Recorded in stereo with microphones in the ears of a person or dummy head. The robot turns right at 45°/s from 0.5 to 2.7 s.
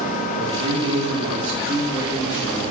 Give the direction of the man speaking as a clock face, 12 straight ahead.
3 o'clock.